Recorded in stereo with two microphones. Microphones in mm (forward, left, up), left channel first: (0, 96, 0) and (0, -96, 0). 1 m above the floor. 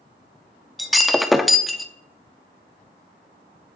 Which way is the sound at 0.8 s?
Centre (ahead or behind).